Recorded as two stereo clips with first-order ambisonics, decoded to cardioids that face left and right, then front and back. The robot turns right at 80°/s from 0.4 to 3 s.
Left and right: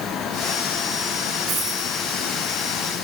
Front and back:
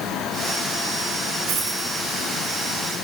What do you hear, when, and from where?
1.5 s a dropped coin: 150° right, 4.5 m; by 1.9 s 115° right, 4.5 m